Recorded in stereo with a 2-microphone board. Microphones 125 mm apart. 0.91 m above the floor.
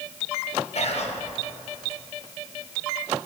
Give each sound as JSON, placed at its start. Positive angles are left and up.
{"t": 0.8, "sound": "whispering", "side_deg": 60, "distance_m": 0.7}